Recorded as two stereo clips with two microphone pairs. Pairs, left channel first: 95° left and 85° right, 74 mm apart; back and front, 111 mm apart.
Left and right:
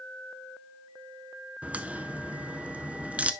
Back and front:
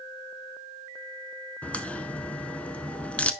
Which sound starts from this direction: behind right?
A crack, at 1.6 s.